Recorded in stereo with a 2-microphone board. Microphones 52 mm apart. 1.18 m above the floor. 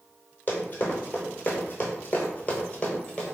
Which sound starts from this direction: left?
Running footsteps, at 0.5 s.